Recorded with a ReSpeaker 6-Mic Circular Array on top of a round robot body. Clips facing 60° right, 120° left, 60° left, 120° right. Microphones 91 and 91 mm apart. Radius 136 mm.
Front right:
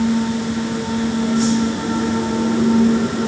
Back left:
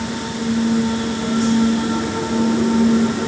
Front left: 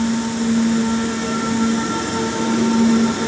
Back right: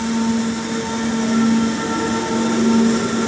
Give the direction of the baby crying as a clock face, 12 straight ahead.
I don't hear a baby crying.